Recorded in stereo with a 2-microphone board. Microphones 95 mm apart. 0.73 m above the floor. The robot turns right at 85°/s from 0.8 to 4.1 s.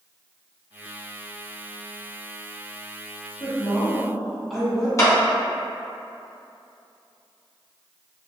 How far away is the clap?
About 0.7 m.